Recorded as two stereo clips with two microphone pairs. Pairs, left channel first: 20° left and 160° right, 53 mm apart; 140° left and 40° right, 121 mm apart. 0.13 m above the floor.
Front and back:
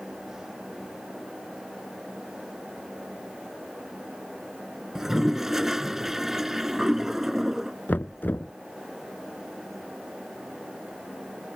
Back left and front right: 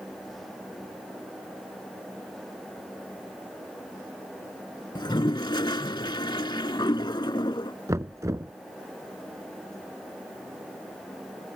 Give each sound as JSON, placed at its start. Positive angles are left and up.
{"t": 5.0, "sound": "a toilet flushing", "azimuth_deg": 125}
{"t": 7.9, "sound": "knocking", "azimuth_deg": 5}